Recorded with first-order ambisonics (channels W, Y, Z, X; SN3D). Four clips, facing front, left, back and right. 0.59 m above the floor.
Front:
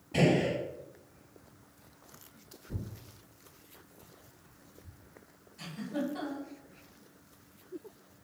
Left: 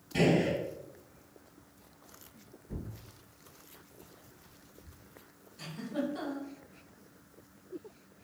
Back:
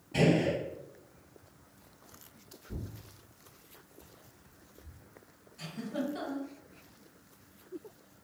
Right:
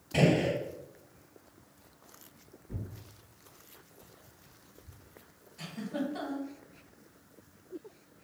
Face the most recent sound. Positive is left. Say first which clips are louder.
# even, front 1 dB
turn(degrees=-95)